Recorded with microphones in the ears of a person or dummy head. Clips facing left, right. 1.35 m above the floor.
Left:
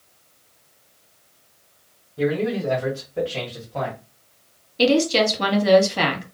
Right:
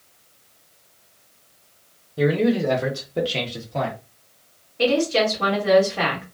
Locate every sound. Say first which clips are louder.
2.2 s a man speaking: right 3 dB; 85° right, 0.9 m; by 4.0 s 25° right (ahead or behind), 1.1 m
4.8 s a woman speaking: left 2 dB; 50° left (ahead or behind), 1.2 m